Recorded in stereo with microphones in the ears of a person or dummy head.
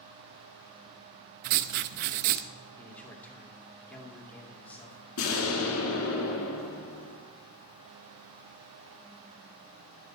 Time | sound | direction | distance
1.4 | writing | 50° right (ahead or behind) | 0.5 m
2.8 | a man speaking | 10° left (ahead or behind) | 2 m
5.2 | an explosion | 85° left | 2 m